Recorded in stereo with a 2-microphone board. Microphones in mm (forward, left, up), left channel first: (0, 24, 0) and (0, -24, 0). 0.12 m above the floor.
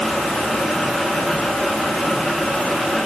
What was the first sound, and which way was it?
Only background noise.